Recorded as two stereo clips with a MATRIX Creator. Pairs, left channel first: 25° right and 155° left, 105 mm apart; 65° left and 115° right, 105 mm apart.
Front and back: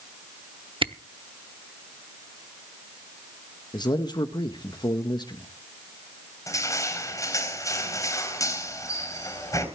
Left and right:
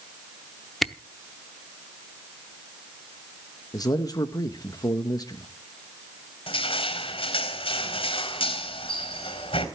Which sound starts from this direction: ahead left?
Crushing, at 6.5 s.